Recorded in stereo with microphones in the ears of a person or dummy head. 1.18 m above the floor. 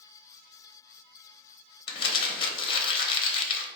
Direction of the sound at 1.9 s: 30° left (ahead or behind).